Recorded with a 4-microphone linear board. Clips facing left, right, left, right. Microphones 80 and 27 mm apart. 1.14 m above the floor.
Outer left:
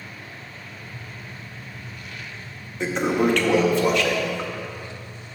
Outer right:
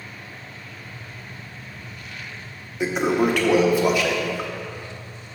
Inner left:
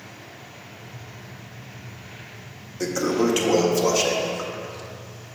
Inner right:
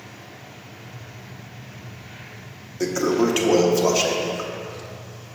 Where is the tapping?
50° left (ahead or behind), 1.8 m.